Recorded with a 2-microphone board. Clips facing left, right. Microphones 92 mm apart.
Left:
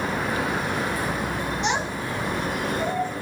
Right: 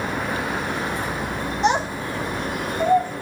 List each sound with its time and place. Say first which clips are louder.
1.6 s a child speaking: right 9 dB; 40° right (ahead or behind), 3.5 m; by 3.1 s 45° right (ahead or behind), 5 m